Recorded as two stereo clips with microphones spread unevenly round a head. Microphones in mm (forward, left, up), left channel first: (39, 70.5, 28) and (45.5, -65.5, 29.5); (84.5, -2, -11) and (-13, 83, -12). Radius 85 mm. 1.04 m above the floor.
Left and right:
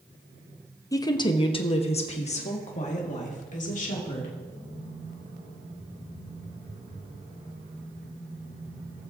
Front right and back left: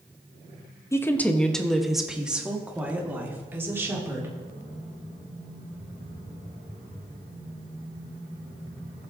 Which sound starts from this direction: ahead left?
A woman speaking, at 0.9 s.